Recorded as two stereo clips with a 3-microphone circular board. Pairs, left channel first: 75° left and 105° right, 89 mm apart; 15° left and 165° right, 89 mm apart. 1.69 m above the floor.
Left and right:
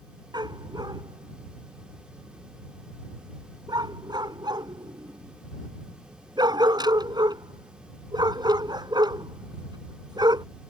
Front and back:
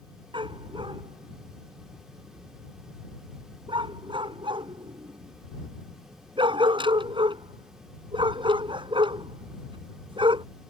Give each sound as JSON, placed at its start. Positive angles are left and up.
{"t": 0.3, "sound": "a dog barking", "azimuth_deg": -145}